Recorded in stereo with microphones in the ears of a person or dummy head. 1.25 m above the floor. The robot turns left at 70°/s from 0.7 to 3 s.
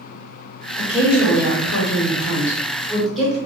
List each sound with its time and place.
0.8 s a woman speaking: 155° left, 1.3 m; by 3.4 s straight ahead, 1.3 m